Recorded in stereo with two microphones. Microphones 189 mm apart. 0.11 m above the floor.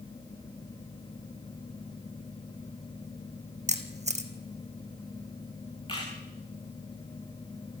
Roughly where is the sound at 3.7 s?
Right.